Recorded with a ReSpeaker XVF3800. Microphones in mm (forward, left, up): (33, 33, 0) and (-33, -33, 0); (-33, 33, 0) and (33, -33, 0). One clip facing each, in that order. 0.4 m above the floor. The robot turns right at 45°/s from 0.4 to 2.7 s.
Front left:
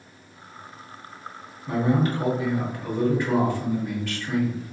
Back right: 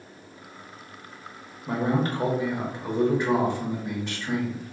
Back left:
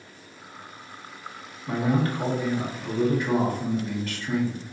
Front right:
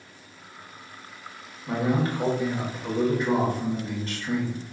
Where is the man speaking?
125° right, 1.0 m; by 4.7 s 75° right, 1.0 m.